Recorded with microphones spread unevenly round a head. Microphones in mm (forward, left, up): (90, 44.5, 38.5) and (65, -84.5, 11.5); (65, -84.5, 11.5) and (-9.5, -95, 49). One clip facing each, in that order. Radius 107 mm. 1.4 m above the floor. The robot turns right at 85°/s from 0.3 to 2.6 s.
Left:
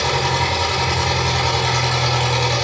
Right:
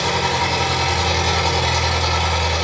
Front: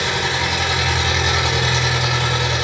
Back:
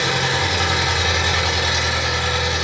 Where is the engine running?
155° right, 3.5 m; by 2.6 s 40° left, 3.5 m.